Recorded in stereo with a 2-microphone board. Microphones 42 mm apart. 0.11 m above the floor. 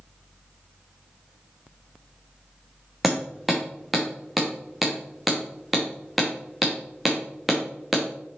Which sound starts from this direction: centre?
Hammering, at 3.0 s.